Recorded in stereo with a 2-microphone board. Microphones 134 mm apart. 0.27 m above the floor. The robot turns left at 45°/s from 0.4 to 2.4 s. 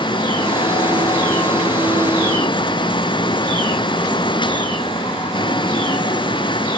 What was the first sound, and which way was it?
Only background noise.